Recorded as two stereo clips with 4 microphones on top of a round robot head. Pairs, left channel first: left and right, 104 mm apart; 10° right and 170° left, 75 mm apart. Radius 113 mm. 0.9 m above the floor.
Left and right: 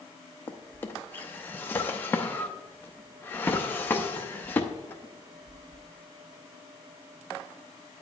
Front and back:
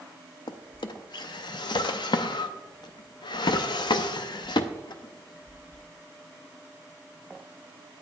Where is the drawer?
15° left, 0.5 m.